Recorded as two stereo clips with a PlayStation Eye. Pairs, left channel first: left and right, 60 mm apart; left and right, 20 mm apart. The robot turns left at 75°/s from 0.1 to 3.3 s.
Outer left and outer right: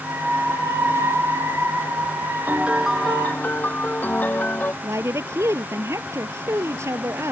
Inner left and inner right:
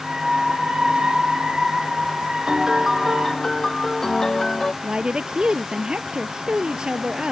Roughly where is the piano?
Behind right.